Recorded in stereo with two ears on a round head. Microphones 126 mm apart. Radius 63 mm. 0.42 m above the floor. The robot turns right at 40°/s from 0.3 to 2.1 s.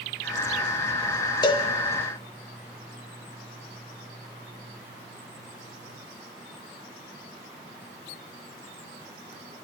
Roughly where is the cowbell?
Left.